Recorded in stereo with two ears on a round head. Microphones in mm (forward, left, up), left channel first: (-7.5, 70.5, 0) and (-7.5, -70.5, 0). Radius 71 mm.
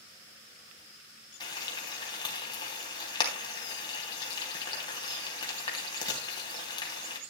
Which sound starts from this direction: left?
Frying, at 1.4 s.